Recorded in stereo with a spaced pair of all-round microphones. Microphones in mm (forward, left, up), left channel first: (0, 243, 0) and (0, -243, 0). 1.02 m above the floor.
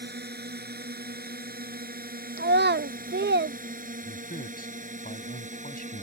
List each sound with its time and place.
0.0 s a drone: 20° right (ahead or behind); by 6.0 s 15° right (ahead or behind)
2.4 s a child speaking: 25° right (ahead or behind)
4.0 s a man speaking: 20° left (ahead or behind)